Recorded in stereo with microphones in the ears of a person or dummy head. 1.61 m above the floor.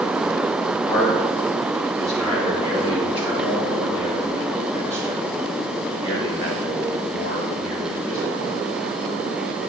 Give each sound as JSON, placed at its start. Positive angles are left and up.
{"t": 0.9, "sound": "a man speaking", "side_deg": -5, "distance_m": 3.5}